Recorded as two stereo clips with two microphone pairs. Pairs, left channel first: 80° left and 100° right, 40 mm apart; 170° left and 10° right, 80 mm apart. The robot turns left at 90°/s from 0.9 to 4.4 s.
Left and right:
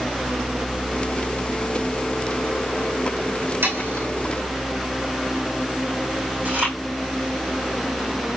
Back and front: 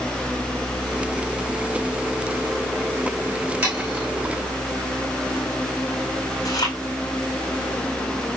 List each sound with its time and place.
3.6 s sawing: 80° right, 5.5 m; by 4.0 s 120° right, 5.5 m
6.5 s chewing: 150° right, 6.5 m